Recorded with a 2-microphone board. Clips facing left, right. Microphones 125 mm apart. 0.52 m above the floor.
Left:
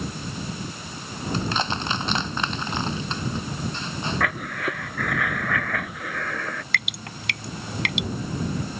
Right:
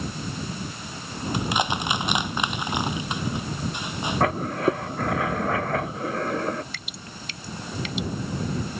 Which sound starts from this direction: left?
Dripping, at 6.7 s.